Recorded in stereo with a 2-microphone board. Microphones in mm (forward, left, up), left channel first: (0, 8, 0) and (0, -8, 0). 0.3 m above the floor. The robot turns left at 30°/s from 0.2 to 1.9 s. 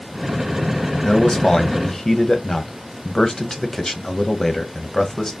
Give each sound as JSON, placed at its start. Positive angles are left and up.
{"t": 1.0, "sound": "a man speaking", "side_deg": 45, "distance_m": 1.3}